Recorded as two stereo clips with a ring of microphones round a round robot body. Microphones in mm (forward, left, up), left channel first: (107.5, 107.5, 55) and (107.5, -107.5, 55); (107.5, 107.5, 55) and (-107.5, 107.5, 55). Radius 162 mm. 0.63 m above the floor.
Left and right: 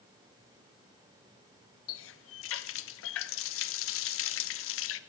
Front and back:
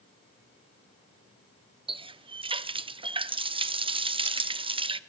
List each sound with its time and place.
1.9 s a running tap: 110° left, 0.7 m